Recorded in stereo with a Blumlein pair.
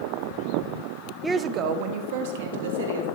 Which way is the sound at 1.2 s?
10° right.